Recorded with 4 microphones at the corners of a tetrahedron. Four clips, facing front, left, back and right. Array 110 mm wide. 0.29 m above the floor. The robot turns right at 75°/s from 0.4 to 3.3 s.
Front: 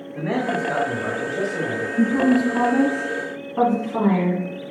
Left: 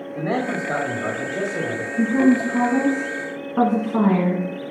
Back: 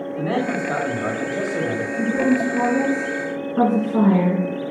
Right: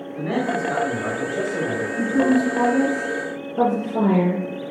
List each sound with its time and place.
0.1 s a man speaking: 105° left, 1.4 m; by 1.9 s 145° right, 1.4 m
2.0 s a woman speaking: straight ahead, 2 m; by 4.4 s 100° left, 2 m